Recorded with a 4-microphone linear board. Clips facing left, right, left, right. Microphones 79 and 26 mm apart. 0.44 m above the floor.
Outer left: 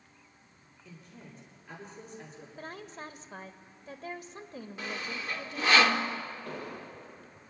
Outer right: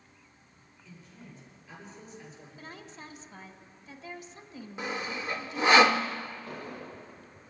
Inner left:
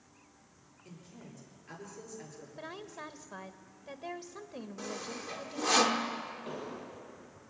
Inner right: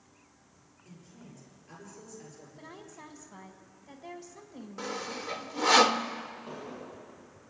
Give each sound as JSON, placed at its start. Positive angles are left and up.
{"t": 0.8, "sound": "a woman speaking", "side_deg": 55, "distance_m": 8.0}
{"t": 2.6, "sound": "a woman speaking", "side_deg": 55, "distance_m": 1.4}
{"t": 4.8, "sound": "sawing", "side_deg": -20, "distance_m": 0.9}
{"t": 6.5, "sound": "an explosion", "side_deg": 80, "distance_m": 8.5}